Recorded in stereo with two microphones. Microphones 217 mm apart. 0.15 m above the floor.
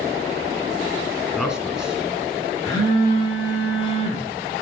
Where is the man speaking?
5° right (ahead or behind), 1.6 m.